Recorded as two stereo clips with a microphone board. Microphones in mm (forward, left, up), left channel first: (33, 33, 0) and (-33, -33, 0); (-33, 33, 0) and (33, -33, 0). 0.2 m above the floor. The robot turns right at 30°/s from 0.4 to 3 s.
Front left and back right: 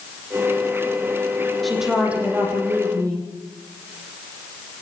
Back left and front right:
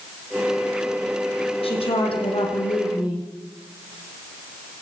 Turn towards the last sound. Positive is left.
turn(degrees=175)